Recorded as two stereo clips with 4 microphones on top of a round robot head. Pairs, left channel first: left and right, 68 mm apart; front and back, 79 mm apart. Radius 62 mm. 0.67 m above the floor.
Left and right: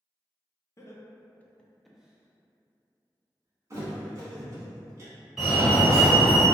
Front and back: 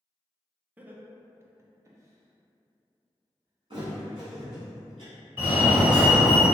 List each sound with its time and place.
0.8 s laughter: 115° left, 0.8 m; by 4.6 s 120° right, 1.6 m
3.7 s a thud: 130° right, 1.1 m
5.4 s a fire alarm: 165° right, 1.6 m